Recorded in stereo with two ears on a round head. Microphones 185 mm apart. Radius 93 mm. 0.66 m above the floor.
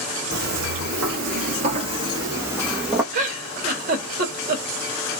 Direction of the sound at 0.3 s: 50° right (ahead or behind).